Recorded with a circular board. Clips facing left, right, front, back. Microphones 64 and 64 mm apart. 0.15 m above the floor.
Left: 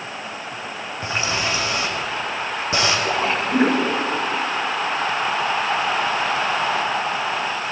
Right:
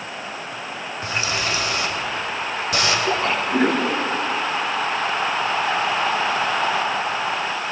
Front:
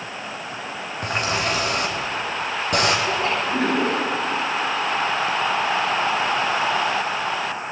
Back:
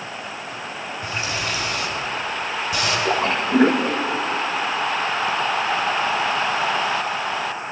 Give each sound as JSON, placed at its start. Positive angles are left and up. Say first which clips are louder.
{"t": 1.0, "sound": "a running tap", "louder": "left 1 dB, front 4 dB", "azimuth_deg": 30, "distance_m": 4.5}
{"t": 3.0, "sound": "a splash", "louder": "even, back 2 dB", "azimuth_deg": 160, "distance_m": 7.5}